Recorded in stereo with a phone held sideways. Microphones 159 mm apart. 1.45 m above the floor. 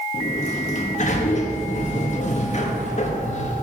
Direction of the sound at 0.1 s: 50° left (ahead or behind).